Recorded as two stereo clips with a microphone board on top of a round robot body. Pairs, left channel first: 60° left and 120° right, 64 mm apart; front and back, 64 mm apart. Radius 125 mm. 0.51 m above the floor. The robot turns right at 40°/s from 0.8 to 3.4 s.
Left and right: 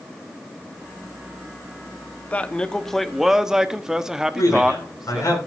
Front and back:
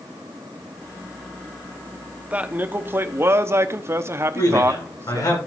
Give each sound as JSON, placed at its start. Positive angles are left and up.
{"t": 2.3, "sound": "a man speaking", "azimuth_deg": 120, "distance_m": 1.1}
{"t": 4.3, "sound": "a man speaking", "azimuth_deg": 25, "distance_m": 7.0}